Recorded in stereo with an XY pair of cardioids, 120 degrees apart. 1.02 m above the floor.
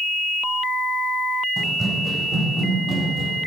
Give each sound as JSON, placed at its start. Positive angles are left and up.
{"t": 1.6, "sound": "running footsteps", "azimuth_deg": -30, "distance_m": 3.0}